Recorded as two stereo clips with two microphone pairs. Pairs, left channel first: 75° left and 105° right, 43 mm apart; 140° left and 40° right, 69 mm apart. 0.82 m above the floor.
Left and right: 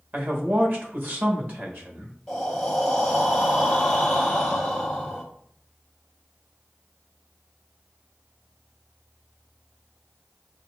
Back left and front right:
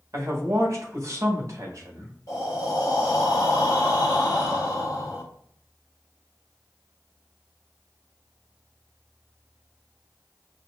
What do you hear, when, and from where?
0.1 s a man speaking: 75° right, 1.4 m
2.3 s breathing: 160° left, 1.4 m